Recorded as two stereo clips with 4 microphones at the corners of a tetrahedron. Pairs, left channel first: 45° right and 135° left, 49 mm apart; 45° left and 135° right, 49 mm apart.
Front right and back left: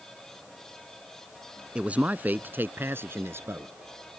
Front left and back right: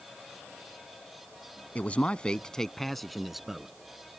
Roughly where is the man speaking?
Left.